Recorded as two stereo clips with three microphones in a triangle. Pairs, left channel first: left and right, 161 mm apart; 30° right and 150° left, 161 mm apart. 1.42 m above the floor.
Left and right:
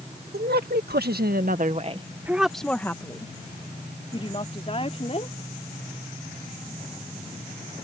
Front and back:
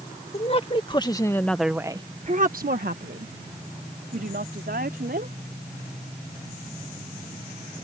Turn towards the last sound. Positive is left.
turn(degrees=140)